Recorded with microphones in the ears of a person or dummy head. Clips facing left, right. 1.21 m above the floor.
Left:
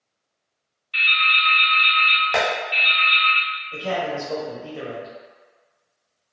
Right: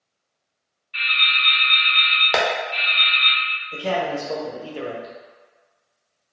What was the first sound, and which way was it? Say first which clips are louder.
Dripping: left 3 dB; 60° left (ahead or behind).